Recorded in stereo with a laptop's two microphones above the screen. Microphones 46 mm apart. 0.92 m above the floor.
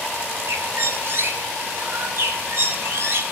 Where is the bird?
55° right (ahead or behind), 1.7 m.